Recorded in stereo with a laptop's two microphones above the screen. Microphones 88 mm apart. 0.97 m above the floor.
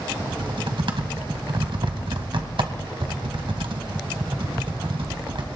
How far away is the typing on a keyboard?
About 1.8 m.